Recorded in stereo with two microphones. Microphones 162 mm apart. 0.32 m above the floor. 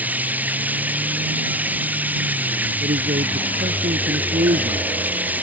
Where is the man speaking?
65° right (ahead or behind).